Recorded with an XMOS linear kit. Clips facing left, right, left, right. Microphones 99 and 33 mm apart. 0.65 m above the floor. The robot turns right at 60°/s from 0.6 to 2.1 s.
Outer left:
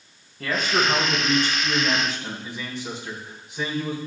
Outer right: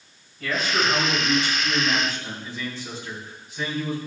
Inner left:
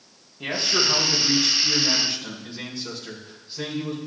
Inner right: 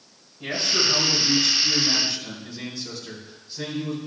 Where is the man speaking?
70° left, 4 m; by 4.1 s 160° left, 4 m.